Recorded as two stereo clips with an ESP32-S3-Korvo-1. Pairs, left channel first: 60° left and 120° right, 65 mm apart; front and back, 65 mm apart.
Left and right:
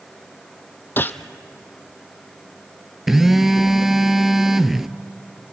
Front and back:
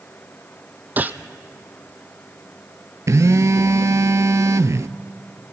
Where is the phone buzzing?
155° left, 0.6 m.